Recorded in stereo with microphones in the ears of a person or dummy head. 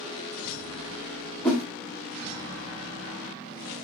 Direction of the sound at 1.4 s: 10° left (ahead or behind).